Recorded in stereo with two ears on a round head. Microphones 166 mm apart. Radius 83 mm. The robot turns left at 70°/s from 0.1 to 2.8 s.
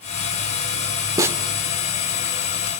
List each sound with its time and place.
1.2 s a snare drum: 20° right (ahead or behind), 1.5 m; by 1.4 s 5° right (ahead or behind), 1.5 m